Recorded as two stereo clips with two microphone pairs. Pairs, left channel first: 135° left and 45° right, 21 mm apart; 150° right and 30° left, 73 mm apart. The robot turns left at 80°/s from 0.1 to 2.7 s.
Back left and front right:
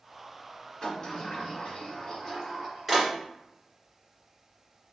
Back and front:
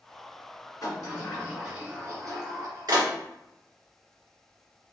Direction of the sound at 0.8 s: Straight behind.